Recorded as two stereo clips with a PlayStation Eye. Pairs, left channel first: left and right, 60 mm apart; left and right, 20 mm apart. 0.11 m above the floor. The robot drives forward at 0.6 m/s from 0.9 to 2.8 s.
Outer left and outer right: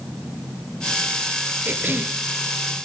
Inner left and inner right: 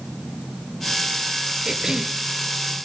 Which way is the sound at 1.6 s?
35° right (ahead or behind).